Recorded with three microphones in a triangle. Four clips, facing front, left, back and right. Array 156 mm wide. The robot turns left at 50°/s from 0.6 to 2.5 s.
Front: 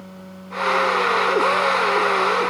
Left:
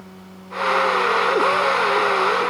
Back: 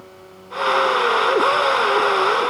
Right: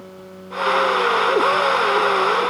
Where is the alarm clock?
No alarm clock in this recording.